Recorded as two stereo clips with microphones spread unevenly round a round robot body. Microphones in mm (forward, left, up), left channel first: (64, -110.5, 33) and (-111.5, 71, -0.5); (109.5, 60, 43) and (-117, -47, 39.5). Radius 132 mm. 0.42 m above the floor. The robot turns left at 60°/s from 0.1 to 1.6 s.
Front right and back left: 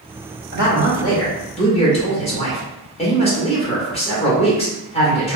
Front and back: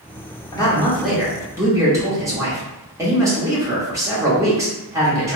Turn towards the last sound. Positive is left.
turn(degrees=-95)